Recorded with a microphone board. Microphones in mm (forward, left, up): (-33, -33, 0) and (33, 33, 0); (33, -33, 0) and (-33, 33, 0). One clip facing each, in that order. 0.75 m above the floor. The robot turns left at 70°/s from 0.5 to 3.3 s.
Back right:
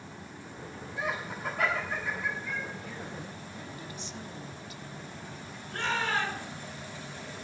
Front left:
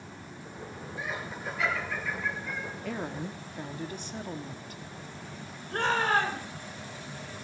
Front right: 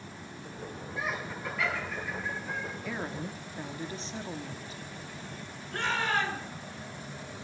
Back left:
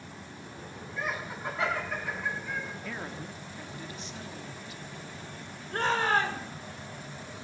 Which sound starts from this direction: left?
A shout, at 5.7 s.